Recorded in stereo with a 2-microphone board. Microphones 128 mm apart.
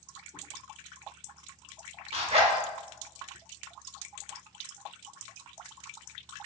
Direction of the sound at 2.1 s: 50° right (ahead or behind).